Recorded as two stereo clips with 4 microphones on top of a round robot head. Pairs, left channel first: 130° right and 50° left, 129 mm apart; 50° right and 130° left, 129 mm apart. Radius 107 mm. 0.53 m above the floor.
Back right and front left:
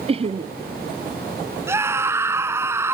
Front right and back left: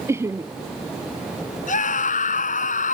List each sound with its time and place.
0.1 s laughter: 70° left
1.7 s a scream: 25° right